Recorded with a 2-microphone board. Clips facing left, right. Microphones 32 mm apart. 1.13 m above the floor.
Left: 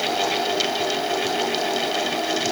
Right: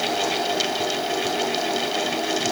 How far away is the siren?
I don't hear a siren.